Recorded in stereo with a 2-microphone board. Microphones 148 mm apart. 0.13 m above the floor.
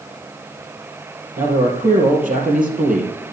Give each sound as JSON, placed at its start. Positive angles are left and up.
{"t": 1.4, "sound": "a man speaking", "side_deg": -65, "distance_m": 3.5}